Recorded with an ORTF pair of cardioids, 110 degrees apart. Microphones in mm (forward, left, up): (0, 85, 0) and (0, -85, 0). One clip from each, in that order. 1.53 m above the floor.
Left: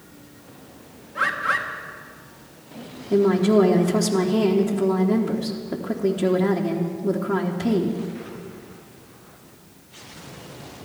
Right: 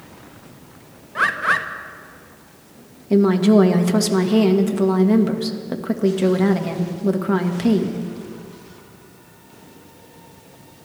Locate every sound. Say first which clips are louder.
1.1 s a bird: right 4 dB; 40° right, 1.3 m
3.1 s a woman speaking: right 2 dB; 65° right, 2 m